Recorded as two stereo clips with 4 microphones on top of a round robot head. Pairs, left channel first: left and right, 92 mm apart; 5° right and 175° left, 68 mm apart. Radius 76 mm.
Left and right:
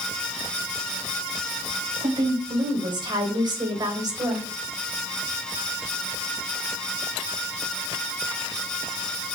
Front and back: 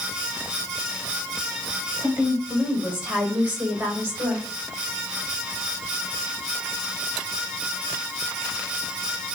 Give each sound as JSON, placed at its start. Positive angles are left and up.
{"t": 2.0, "sound": "a woman speaking", "azimuth_deg": -110, "distance_m": 4.0}